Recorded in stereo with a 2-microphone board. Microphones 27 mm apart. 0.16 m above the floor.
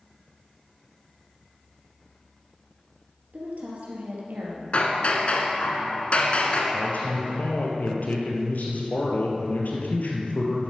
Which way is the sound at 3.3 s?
55° right (ahead or behind).